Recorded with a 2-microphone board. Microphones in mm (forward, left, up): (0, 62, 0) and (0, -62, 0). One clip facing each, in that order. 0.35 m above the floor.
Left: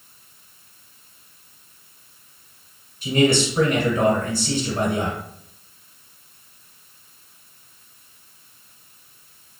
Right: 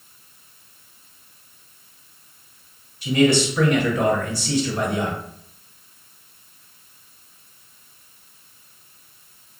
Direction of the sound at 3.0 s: 35° left (ahead or behind).